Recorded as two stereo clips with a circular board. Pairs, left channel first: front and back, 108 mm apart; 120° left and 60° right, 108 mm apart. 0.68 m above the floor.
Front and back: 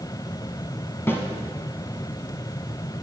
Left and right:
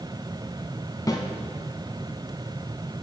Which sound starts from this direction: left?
A snare drum, at 1.1 s.